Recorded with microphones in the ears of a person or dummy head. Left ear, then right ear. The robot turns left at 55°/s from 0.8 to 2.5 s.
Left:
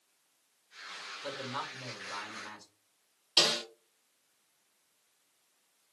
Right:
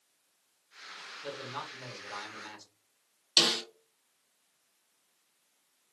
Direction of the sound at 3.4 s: 30° right (ahead or behind).